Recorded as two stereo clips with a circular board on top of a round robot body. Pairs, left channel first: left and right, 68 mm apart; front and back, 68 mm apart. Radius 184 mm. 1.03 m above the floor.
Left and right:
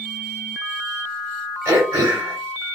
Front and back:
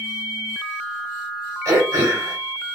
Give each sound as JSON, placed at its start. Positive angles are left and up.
{"t": 1.6, "sound": "throat clearing", "azimuth_deg": -140, "distance_m": 1.6}